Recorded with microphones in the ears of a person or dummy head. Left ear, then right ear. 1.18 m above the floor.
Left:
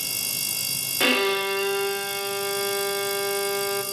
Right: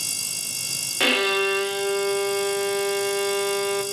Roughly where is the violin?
Centre.